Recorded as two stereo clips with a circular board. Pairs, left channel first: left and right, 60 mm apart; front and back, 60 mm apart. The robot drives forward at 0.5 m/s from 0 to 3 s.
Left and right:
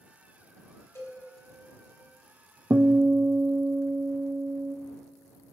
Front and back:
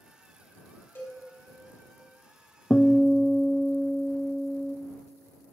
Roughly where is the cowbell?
Ahead left.